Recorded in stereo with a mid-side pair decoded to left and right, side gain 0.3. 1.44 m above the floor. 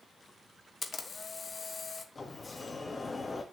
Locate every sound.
0.8 s a camera shutter: 50° left, 1.4 m
2.1 s a sliding door: 40° left, 2 m